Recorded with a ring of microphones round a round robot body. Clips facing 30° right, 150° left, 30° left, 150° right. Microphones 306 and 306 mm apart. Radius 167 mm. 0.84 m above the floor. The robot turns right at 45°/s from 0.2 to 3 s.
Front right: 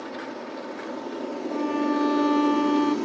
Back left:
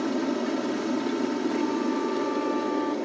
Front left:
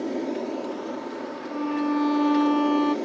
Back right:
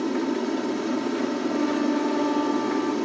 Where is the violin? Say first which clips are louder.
Front right 1 dB, front left 1 dB; 55° right; by 3.0 s 10° left.